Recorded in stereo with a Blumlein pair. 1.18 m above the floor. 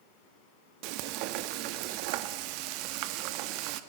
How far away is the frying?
About 1.6 m.